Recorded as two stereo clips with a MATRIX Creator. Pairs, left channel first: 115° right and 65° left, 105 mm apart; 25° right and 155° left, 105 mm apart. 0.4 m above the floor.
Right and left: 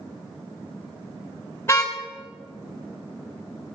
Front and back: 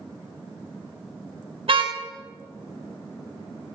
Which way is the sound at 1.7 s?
Straight behind.